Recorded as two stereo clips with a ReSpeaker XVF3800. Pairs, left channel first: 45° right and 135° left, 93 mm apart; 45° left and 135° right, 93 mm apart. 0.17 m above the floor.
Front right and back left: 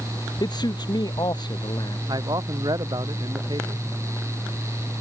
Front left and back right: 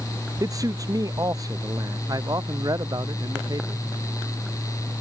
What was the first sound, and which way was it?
A man speaking, 85° right.